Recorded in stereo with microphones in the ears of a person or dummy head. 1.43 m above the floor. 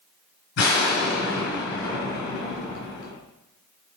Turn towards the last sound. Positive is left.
turn(degrees=65)  # may be behind; listen again after turning